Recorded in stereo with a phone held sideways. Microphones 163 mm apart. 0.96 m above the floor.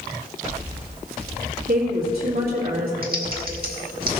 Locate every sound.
1.7 s a woman speaking: 70° right (ahead or behind), 2.5 m
3.0 s typing on a keyboard: 65° right (ahead or behind), 1.9 m